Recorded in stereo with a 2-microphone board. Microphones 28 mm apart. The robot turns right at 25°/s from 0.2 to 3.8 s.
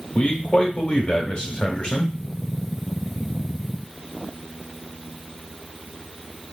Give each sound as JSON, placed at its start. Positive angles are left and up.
{"t": 0.1, "sound": "a man speaking", "azimuth_deg": 80, "distance_m": 1.3}